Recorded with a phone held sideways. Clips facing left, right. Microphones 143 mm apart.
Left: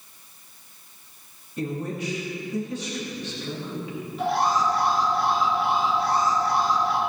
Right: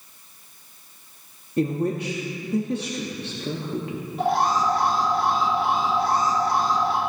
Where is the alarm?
45° right (ahead or behind), 3 m.